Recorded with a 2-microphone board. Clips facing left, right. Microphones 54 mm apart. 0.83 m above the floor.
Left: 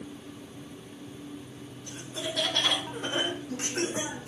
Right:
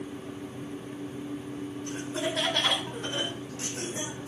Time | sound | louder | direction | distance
1.9 | laughter | right 4 dB | 35° right (ahead or behind) | 1.4 m